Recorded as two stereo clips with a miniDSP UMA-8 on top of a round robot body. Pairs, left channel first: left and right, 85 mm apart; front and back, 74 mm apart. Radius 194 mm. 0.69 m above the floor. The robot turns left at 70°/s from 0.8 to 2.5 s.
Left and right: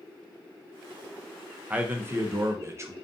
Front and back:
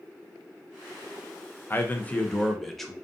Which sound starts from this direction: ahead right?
A man speaking, at 1.7 s.